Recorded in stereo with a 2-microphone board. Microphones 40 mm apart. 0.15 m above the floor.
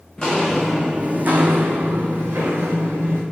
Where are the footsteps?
20° left (ahead or behind), 0.7 m; by 3.2 s 85° right, 1.6 m.